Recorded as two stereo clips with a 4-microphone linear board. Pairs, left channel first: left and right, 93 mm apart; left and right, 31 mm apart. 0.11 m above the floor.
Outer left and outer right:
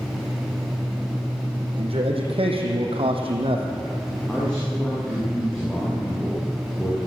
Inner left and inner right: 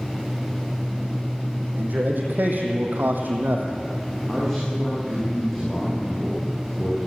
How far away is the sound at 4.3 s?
About 8 m.